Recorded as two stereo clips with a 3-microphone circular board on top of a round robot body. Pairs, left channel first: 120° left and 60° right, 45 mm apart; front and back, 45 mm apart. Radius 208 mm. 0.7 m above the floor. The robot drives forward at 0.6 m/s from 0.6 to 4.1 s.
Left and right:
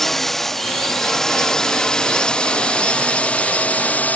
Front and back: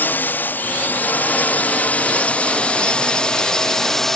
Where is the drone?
35° left; by 4.2 s 80° left.